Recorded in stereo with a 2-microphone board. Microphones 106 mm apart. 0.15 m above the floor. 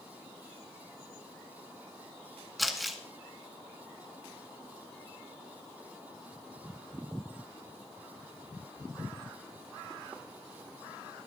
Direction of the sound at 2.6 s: Centre (ahead or behind).